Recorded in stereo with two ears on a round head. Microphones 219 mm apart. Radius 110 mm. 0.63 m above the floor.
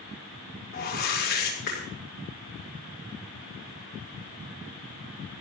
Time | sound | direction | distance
0.7 | a whoosh | 40° left (ahead or behind) | 6 m